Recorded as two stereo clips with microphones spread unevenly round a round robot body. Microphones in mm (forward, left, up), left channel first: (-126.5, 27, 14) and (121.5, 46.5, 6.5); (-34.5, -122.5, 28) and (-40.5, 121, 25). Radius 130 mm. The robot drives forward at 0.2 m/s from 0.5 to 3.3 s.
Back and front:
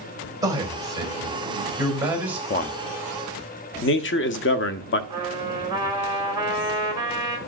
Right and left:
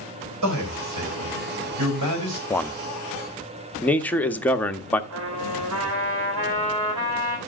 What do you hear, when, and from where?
0.4 s a man speaking: 80° left, 3 m; by 2.4 s 90° left, 3 m
2.5 s a man speaking: 165° right, 0.6 m; by 5.0 s 170° right, 0.7 m
5.1 s a trumpet: 80° left, 2.5 m